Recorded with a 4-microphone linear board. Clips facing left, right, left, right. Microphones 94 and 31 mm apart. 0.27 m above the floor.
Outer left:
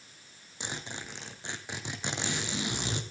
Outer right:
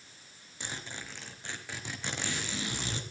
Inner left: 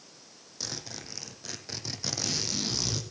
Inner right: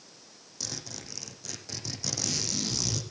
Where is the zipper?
20° left (ahead or behind), 2.0 m.